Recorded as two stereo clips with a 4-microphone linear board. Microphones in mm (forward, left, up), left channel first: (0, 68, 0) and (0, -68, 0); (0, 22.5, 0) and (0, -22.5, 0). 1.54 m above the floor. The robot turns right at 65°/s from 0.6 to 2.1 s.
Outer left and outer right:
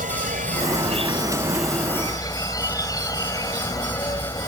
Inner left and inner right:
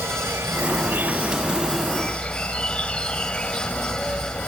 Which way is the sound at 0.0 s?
70° right.